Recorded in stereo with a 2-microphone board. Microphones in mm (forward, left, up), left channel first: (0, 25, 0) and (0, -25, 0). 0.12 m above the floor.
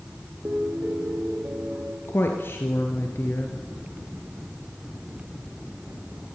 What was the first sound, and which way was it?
A piano, 45° right (ahead or behind).